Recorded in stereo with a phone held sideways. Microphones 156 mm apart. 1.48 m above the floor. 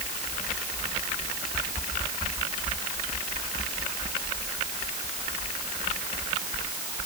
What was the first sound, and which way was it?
Only background noise.